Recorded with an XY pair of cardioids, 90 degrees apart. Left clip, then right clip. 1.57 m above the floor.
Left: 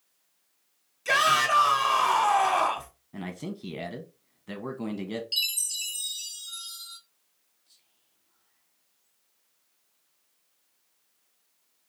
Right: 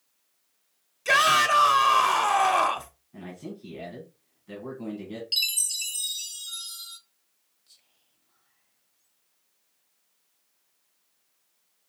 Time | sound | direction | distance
1.1 | a shout | 25° right | 1.0 m
3.1 | a man speaking | 65° left | 1.1 m
5.3 | a chime | 35° right | 1.0 m
7.7 | whispering | 50° right | 0.8 m